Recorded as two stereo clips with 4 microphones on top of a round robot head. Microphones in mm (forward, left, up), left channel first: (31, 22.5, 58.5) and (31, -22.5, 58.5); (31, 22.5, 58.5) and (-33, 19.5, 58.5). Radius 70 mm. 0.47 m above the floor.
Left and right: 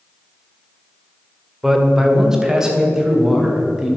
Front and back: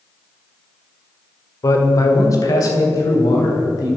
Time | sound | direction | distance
1.6 | a man speaking | 10° right | 1.9 m